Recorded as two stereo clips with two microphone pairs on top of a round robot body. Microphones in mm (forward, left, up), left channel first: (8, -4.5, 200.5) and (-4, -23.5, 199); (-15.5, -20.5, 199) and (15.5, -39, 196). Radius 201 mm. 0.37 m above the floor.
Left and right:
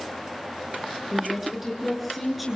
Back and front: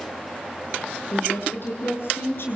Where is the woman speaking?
155° left, 6.5 m; by 2.6 s 150° left, 7 m.